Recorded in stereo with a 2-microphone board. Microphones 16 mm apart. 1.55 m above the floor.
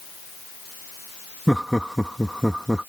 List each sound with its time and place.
1.5 s laughter: 25° right (ahead or behind); by 2.9 s 40° right (ahead or behind)